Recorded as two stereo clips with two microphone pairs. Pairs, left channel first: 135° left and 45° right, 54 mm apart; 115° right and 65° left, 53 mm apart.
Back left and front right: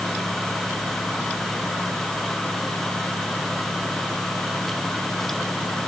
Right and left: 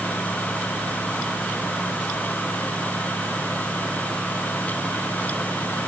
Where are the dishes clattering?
No dishes clattering in this recording.